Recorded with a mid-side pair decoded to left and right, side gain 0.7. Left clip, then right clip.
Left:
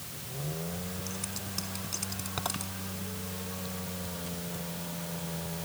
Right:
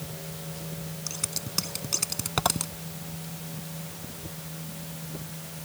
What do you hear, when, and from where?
1.1 s scissors: 40° right